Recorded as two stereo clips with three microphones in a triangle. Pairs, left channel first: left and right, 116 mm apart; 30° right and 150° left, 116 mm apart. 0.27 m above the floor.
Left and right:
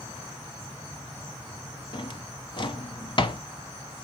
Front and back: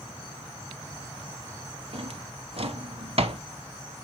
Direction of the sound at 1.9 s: 130° left.